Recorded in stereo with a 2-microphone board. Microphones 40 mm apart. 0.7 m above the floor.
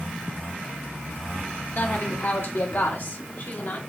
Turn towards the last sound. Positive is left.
turn(degrees=55)  # may be behind; listen again after turning